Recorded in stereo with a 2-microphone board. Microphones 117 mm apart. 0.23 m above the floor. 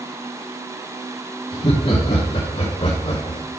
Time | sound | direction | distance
1.5 | laughter | 45° left (ahead or behind) | 3 m